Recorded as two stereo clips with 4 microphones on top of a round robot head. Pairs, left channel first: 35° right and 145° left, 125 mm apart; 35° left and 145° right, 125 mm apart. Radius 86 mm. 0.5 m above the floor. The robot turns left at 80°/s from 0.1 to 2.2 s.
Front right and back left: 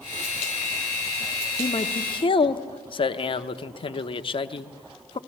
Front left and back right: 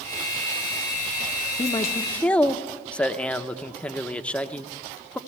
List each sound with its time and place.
1.6 s a man speaking: 5° left, 0.9 m; by 5.2 s 45° right, 0.9 m